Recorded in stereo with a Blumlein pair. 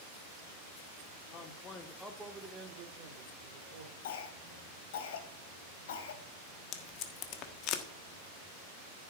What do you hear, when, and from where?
1.3 s a man speaking: 35° left, 1.7 m; by 3.9 s 50° right, 2.5 m
4.0 s a cough: 55° left, 2.5 m
6.7 s tape being pulled: 35° left, 1.3 m